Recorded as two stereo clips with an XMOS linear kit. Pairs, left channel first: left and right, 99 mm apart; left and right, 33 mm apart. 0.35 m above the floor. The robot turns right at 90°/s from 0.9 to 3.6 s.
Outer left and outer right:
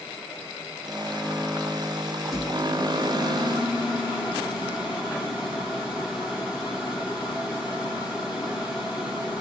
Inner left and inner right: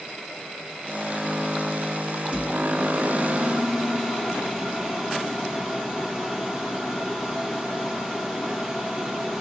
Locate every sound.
2.2 s a microwave: 135° right, 1.8 m; by 9.4 s 15° right, 1.8 m